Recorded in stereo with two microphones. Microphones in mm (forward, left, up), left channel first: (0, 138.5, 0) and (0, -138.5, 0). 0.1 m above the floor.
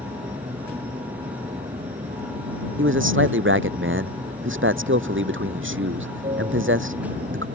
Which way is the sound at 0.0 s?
20° right (ahead or behind).